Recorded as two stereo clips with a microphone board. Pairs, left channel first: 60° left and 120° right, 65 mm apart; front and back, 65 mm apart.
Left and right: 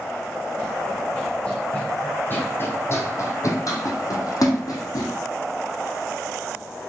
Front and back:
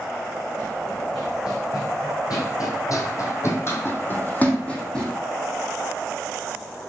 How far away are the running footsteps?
About 3 m.